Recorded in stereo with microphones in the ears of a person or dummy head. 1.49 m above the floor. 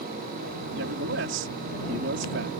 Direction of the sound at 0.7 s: 70° right (ahead or behind).